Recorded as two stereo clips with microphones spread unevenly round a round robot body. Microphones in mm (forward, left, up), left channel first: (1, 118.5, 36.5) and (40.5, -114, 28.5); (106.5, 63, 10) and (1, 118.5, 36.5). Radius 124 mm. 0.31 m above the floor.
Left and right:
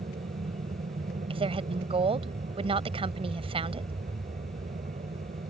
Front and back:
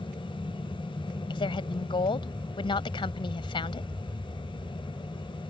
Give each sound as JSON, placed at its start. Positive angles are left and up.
{"t": 0.0, "sound": "an aircraft", "azimuth_deg": -65}
{"t": 1.3, "sound": "a woman speaking", "azimuth_deg": -20}